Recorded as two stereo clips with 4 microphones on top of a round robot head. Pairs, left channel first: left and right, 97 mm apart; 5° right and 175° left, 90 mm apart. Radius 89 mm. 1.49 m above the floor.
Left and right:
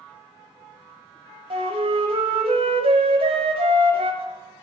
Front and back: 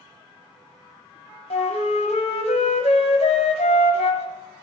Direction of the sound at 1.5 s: 40° right.